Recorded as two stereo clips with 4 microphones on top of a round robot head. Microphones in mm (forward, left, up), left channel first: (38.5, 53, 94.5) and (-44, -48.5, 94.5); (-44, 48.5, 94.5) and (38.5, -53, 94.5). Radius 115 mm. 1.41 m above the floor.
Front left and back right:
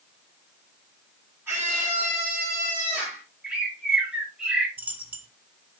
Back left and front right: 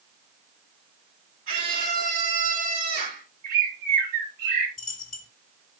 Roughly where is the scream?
Ahead right.